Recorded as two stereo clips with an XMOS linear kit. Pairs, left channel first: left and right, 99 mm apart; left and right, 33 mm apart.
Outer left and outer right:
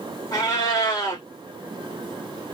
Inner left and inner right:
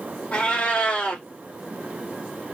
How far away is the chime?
I don't hear a chime.